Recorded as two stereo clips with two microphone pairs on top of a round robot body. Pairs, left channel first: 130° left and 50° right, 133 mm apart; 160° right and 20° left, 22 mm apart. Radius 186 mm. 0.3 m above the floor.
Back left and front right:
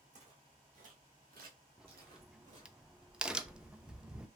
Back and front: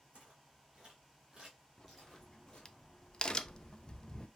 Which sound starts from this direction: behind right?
A crack, at 1.8 s.